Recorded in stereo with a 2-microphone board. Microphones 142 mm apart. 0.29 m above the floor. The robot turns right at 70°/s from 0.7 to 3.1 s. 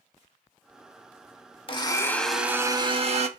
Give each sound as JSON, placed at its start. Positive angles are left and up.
{"t": 1.7, "sound": "a blender", "azimuth_deg": 135, "distance_m": 0.5}